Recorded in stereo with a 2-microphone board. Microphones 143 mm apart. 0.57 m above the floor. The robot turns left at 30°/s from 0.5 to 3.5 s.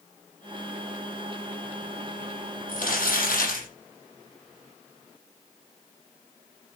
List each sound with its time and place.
2.7 s crumpling: 70° left (ahead or behind), 6.5 m; by 3.7 s 85° left, 6.5 m